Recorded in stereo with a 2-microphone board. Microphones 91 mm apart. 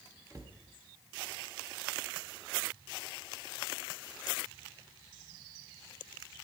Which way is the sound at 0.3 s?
35° right (ahead or behind).